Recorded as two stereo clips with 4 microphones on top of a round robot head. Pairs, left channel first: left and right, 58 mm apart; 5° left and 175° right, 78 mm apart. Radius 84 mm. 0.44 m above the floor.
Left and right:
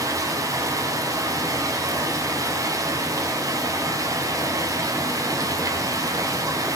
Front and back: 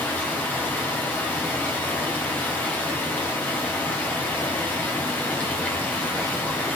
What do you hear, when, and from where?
0.0 s running water: 65° right, 3.5 m